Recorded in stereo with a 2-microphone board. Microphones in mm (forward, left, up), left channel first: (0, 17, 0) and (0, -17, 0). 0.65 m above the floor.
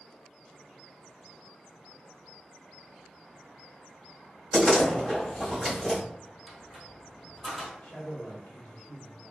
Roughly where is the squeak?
Centre.